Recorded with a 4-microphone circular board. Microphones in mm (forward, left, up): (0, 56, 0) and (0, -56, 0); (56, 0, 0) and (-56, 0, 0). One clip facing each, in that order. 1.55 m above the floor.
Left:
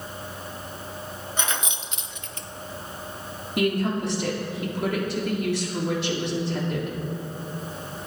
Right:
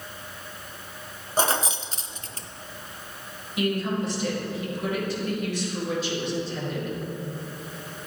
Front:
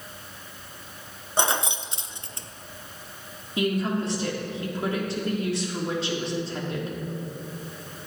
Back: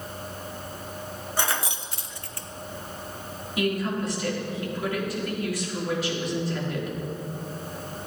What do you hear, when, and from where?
1.4 s keys jangling: 60° right, 0.6 m
3.6 s a woman speaking: 65° left, 3 m